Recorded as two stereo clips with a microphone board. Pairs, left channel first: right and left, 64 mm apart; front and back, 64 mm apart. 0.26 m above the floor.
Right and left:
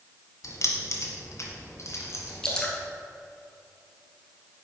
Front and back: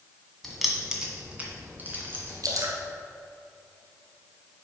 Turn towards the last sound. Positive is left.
turn(degrees=-165)